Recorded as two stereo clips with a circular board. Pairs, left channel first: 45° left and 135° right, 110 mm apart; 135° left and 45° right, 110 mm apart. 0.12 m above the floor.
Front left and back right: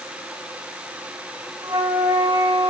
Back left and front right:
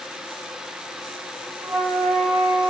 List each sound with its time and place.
1.6 s a flute: 65° right, 6.5 m